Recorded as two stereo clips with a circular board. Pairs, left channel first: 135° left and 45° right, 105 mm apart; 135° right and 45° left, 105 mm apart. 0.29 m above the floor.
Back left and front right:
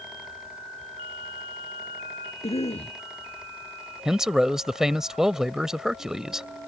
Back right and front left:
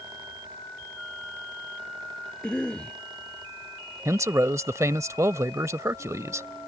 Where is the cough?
145° left.